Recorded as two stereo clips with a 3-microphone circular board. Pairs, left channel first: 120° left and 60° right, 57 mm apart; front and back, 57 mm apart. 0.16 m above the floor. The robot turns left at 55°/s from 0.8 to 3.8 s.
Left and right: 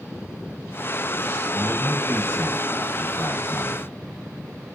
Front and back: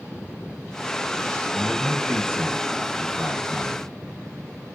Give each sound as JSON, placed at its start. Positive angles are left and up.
{"t": 1.5, "sound": "a man speaking", "azimuth_deg": -145, "distance_m": 2.5}